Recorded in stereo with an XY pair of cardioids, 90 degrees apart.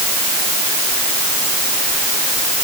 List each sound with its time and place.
Only background noise.